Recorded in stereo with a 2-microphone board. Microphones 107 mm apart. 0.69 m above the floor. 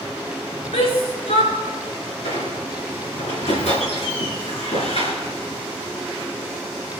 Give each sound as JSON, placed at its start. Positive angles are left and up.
{"t": 0.7, "sound": "a shout", "side_deg": 85, "distance_m": 6.5}
{"t": 2.2, "sound": "a squeak", "side_deg": 85, "distance_m": 6.0}